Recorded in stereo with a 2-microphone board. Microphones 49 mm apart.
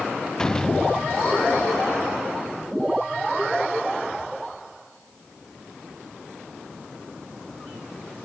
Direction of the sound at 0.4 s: 15° left (ahead or behind).